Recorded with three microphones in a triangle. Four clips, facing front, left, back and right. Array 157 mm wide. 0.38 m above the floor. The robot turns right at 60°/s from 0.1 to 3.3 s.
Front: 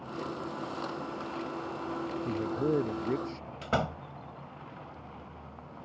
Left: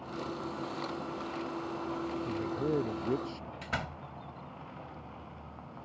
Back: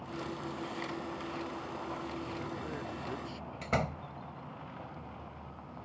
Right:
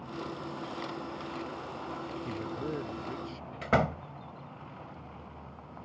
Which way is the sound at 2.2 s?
5° right.